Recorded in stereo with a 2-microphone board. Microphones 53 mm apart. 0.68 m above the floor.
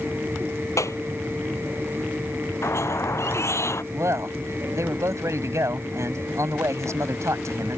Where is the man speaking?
75° right (ahead or behind).